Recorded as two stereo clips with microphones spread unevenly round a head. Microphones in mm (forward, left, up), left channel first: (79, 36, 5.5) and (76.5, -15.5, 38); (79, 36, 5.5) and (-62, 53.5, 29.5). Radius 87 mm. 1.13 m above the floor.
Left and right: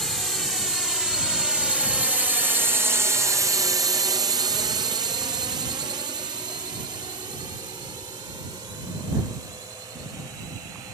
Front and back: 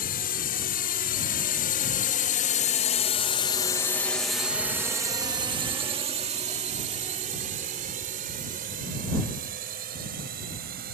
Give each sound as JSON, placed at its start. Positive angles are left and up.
{"t": 0.0, "sound": "a drone", "azimuth_deg": 0}